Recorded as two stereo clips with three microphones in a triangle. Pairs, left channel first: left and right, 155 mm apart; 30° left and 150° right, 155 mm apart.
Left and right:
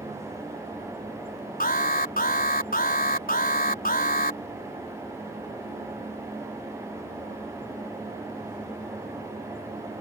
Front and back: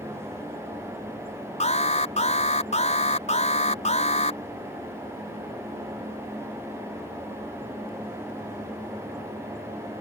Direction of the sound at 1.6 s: 70° left.